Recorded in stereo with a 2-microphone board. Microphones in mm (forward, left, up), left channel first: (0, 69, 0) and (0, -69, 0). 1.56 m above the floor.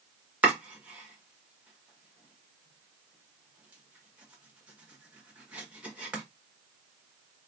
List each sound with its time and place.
0.4 s chopping: 10° right (ahead or behind), 1.1 m